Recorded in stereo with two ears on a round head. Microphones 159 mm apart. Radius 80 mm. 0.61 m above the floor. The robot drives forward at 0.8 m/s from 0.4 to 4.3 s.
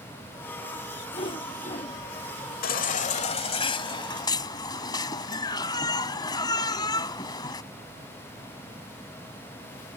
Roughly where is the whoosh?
Left.